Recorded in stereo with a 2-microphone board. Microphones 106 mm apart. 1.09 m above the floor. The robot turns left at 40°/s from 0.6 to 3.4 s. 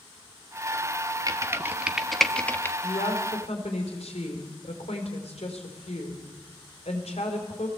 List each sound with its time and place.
1.3 s typing on a keyboard: 35° right (ahead or behind), 1.4 m; by 2.7 s 25° left (ahead or behind), 1.4 m
2.8 s a woman speaking: 65° left (ahead or behind), 4.5 m; by 7.7 s 80° left, 4.5 m